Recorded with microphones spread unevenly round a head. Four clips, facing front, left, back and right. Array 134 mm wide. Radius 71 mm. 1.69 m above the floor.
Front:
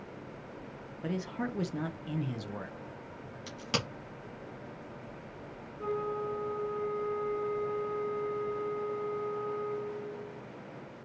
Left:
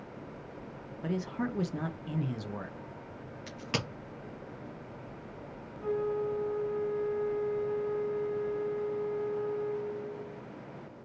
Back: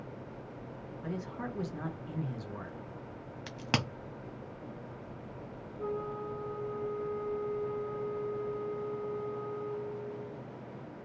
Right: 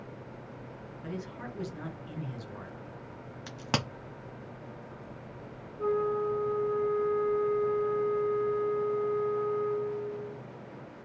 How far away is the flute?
About 2.5 m.